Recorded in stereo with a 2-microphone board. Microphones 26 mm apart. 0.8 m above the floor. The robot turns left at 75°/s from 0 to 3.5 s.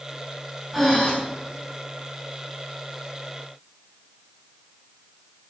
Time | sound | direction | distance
0.7 | breathing | 5° right (ahead or behind) | 5.5 m